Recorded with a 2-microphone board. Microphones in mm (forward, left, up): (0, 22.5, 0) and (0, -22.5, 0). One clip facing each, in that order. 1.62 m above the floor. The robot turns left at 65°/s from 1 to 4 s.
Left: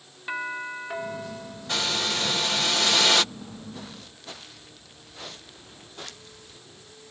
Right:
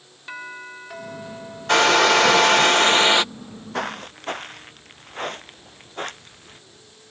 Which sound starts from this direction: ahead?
A doorbell, at 0.3 s.